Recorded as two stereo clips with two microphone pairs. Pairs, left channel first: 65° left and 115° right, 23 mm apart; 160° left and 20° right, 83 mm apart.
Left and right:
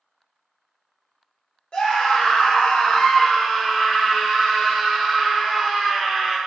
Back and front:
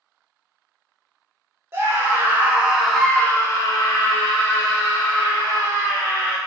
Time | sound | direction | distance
1.7 | a scream | 35° left | 1.3 m